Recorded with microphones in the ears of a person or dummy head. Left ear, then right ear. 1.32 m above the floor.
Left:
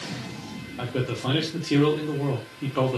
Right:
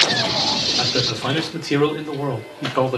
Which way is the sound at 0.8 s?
45° right (ahead or behind).